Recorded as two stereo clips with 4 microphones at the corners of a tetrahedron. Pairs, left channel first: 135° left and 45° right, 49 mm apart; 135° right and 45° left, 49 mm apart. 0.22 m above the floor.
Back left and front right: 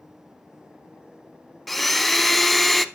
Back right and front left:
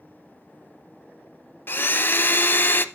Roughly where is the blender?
Behind right.